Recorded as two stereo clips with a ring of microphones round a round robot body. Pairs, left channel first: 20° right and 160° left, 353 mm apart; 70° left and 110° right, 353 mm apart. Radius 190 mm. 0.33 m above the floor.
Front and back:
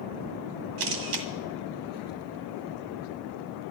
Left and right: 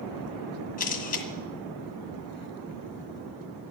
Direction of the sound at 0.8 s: 135° left.